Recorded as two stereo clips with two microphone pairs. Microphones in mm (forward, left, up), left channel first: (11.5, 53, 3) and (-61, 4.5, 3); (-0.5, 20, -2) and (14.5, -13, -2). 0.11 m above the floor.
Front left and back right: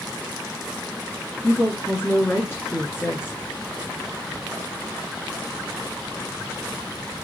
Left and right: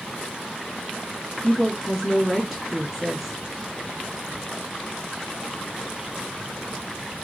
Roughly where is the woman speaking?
Ahead.